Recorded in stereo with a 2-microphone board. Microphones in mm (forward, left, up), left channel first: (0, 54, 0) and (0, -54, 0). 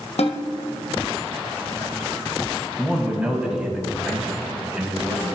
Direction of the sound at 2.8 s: 10° right (ahead or behind).